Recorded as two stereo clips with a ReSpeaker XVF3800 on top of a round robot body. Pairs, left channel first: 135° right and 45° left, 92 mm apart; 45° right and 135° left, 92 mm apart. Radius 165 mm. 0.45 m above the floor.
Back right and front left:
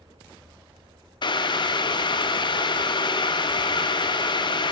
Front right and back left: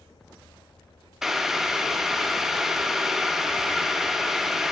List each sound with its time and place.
1.2 s boiling: 140° right, 0.7 m